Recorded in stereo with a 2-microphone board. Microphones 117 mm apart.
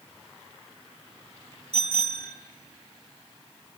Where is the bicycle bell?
65° right (ahead or behind), 3 m.